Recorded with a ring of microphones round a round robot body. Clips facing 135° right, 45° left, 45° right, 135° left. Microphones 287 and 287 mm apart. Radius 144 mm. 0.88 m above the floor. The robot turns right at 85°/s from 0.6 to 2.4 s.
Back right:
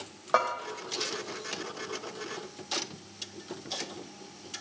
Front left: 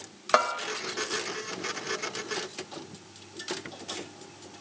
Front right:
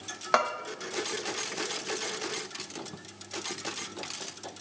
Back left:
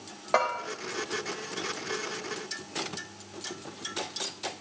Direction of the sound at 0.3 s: 5° left.